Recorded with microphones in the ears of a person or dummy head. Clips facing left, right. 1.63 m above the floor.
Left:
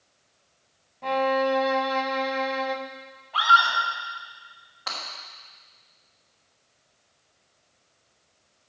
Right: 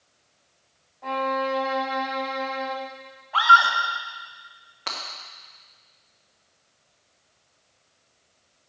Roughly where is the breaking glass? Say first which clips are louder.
Right 1 dB; right.